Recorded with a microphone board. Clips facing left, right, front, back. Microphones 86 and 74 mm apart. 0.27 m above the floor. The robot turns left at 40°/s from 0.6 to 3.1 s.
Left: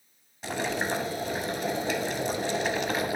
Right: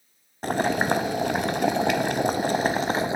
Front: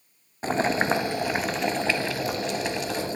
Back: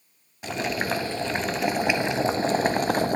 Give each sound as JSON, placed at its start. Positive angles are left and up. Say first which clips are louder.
{"t": 0.4, "sound": "boiling", "louder": "right 7 dB, front 4 dB", "azimuth_deg": -55, "distance_m": 0.5}